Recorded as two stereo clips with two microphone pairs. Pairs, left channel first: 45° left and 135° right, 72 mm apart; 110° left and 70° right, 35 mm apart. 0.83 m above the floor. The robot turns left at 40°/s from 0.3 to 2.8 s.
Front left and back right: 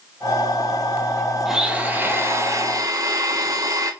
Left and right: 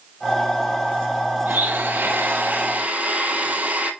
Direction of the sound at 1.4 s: 55° right.